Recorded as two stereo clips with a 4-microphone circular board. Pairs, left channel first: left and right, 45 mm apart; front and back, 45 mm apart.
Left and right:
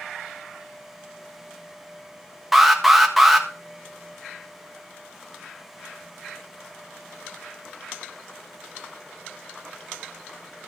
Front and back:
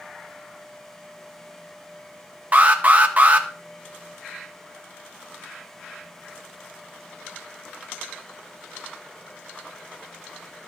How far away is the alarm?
About 1.6 m.